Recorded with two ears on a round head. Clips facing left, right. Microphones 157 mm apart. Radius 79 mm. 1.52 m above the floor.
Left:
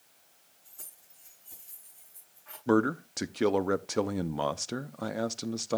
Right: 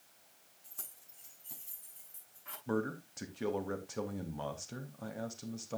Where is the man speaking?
70° left (ahead or behind), 0.6 m.